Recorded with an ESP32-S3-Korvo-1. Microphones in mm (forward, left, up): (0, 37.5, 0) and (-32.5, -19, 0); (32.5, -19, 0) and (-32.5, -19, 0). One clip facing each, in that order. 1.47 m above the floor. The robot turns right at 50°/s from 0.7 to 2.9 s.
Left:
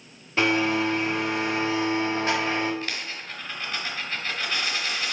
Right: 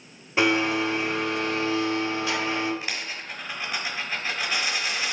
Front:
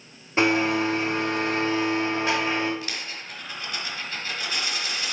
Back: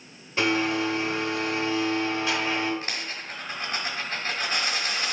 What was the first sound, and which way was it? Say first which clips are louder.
A blender: even, front 3 dB; 45° right.